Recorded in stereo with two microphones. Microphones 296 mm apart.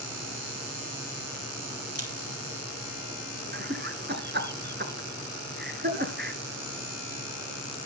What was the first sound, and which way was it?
A camera shutter, 55° right (ahead or behind).